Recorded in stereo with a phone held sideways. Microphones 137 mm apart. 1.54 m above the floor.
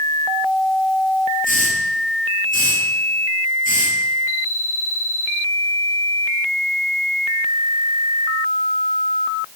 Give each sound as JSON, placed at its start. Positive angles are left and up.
{"t": 1.4, "sound": "a hiss", "side_deg": 70, "distance_m": 7.5}